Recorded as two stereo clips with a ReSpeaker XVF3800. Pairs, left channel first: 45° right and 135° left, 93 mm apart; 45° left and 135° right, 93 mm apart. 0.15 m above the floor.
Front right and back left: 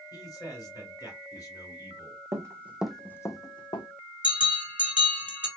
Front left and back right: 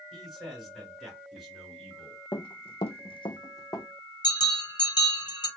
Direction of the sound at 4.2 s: 60° left.